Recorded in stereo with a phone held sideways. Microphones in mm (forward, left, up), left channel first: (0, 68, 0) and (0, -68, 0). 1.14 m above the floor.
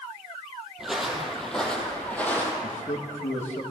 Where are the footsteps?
5° right (ahead or behind), 2.5 m; by 2.5 s 15° left (ahead or behind), 3 m.